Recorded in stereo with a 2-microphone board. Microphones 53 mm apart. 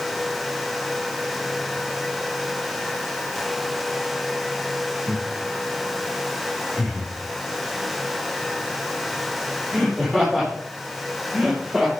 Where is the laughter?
55° left (ahead or behind), 6 m; by 11.9 s 10° left (ahead or behind), 9.5 m.